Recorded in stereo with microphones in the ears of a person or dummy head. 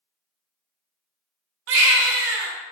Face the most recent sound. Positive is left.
turn(degrees=-70)  # may be behind; listen again after turning